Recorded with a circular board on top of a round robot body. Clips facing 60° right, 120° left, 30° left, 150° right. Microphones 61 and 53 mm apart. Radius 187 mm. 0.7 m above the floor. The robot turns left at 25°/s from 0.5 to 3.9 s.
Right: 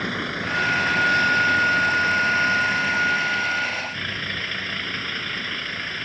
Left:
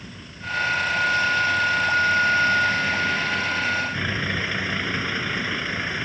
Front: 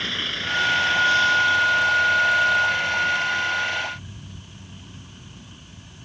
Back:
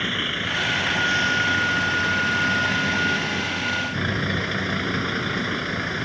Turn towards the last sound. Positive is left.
turn(degrees=-160)